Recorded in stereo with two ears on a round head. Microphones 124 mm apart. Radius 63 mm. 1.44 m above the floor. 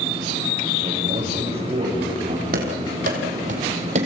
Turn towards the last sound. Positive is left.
turn(degrees=-50)  # may be behind; listen again after turning